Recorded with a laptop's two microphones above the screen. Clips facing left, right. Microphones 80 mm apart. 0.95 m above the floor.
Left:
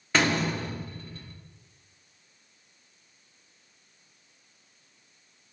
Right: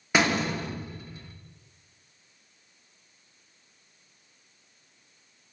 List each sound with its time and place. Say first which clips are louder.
0.1 s a door slam: right 1 dB; 15° right (ahead or behind), 1.0 m